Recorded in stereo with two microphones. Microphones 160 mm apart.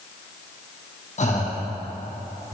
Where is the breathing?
50° left (ahead or behind), 2.5 m.